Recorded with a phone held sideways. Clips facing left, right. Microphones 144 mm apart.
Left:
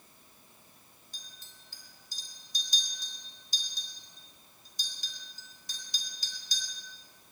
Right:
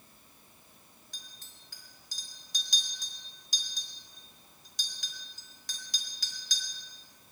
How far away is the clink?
About 3 m.